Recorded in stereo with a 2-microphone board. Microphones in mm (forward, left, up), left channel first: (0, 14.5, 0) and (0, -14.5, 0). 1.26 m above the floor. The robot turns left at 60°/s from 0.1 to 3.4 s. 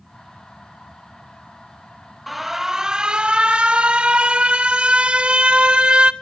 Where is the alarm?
Straight ahead, 0.6 m; by 6.1 s 70° right, 0.6 m.